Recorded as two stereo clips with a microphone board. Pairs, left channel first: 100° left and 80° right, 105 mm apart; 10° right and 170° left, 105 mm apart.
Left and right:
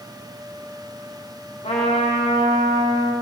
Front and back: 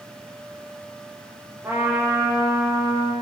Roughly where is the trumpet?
Left.